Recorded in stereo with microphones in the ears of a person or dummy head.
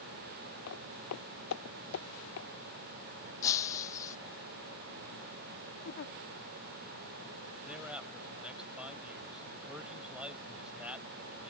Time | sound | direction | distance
0.7 | footsteps | 80° left | ?
3.4 | breaking glass | 15° left (ahead or behind) | ?
5.8 | a giggle | 60° left (ahead or behind) | ?
7.7 | a man speaking | 10° right (ahead or behind) | ?